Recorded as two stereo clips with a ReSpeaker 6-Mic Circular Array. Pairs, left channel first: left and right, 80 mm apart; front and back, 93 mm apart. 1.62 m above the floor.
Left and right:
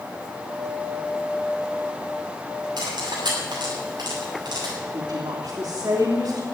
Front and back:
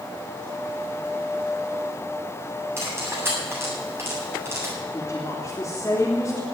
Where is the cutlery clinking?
115° right, 8 m.